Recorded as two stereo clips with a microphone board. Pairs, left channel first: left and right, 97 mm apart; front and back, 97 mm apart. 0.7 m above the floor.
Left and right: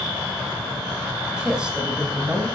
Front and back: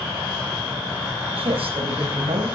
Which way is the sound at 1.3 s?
170° right.